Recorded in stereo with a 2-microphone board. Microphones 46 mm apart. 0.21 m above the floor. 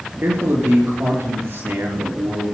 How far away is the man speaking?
About 4.5 m.